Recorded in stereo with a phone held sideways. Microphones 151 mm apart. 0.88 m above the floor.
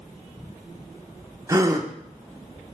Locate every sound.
1.5 s a gasp: 25° right (ahead or behind), 0.7 m